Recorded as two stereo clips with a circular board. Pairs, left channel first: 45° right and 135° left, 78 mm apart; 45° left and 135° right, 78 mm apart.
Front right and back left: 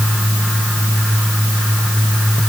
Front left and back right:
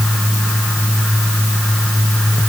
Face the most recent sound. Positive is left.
No sound to turn to.